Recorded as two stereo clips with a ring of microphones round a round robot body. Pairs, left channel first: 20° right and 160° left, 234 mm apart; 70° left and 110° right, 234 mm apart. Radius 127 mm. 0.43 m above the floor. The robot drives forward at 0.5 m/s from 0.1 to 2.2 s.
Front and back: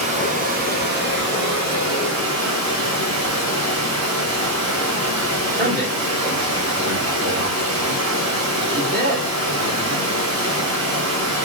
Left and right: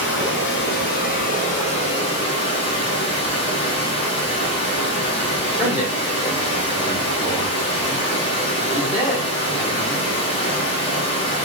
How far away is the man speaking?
About 1.8 m.